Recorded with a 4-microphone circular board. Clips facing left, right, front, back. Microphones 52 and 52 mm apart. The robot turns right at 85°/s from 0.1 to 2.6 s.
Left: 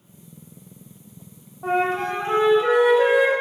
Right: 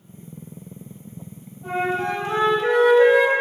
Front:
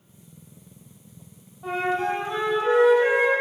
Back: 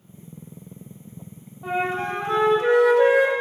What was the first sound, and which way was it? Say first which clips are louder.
A flute: left 2 dB, even; 95° left.